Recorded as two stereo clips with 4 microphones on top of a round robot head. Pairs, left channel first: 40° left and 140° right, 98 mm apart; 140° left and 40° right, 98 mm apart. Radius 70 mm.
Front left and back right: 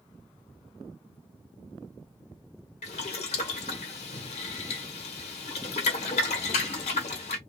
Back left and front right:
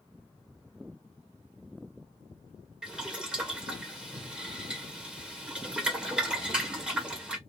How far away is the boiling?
About 1.1 m.